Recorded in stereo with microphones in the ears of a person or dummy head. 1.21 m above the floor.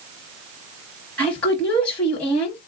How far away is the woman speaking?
About 0.9 m.